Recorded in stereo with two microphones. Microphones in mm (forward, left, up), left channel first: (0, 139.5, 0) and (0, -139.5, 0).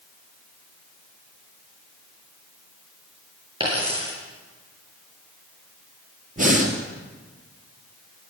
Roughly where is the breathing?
Right.